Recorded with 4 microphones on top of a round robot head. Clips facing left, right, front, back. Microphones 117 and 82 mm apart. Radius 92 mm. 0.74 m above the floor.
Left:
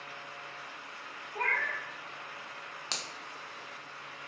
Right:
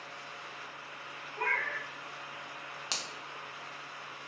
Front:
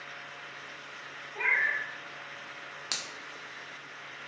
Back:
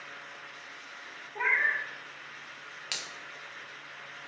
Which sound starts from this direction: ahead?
A finger snap, at 2.9 s.